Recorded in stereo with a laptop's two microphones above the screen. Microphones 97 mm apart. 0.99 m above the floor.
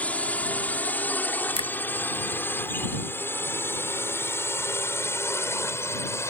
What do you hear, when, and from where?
0.0 s a drone: 15° left (ahead or behind); by 6.3 s 30° left (ahead or behind)
1.6 s a finger snap: 85° left